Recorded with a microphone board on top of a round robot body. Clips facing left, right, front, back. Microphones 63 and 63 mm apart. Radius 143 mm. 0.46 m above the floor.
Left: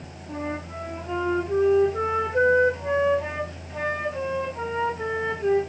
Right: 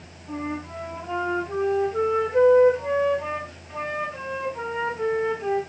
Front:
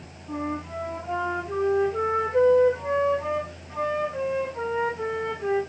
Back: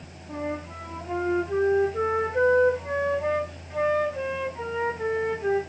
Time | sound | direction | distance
0.3 | a flute | 30° right | 5.5 m